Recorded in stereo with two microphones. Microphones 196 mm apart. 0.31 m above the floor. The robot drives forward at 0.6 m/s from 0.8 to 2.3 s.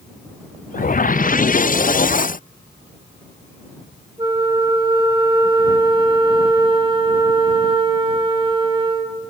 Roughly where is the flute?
Right.